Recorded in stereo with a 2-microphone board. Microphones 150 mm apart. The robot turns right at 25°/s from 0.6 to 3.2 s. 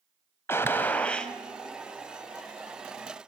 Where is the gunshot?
15° left (ahead or behind), 0.7 m; by 1.3 s 5° left (ahead or behind), 0.7 m.